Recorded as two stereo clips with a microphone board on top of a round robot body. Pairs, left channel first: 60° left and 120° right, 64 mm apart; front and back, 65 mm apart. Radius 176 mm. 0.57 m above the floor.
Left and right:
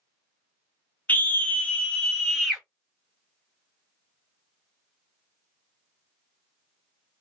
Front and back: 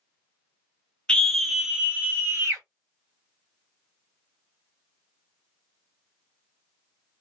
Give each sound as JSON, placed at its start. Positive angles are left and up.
{"t": 1.1, "sound": "a scream", "azimuth_deg": 60, "distance_m": 1.1}